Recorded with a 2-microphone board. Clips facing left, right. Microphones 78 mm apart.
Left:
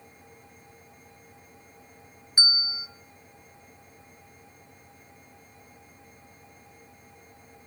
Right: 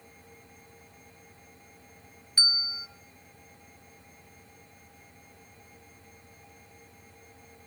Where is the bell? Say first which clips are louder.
Left 3 dB; 15° left (ahead or behind), 0.9 m.